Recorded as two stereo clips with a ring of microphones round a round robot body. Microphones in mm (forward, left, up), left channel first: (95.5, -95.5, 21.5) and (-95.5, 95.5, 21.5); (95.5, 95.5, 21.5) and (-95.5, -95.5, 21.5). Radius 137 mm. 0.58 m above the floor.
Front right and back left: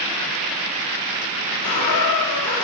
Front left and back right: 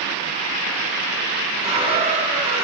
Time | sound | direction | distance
1.6 | a squeak | 65° right | 1.8 m